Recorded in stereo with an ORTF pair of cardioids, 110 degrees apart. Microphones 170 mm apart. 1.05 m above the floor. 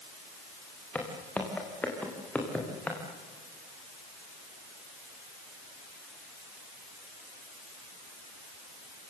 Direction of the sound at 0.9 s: 10° left.